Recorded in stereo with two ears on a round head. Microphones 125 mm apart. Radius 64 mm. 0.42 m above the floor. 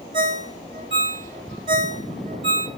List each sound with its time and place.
0.1 s a ringtone: 35° right (ahead or behind), 0.9 m